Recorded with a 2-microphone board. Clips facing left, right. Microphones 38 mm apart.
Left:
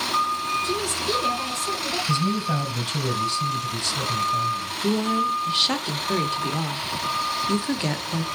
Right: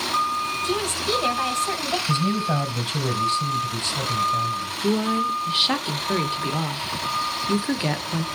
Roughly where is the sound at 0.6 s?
Right.